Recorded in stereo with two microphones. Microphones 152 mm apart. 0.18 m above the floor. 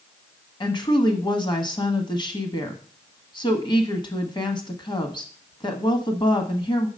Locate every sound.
0.6 s a woman speaking: 30° left (ahead or behind), 1.1 m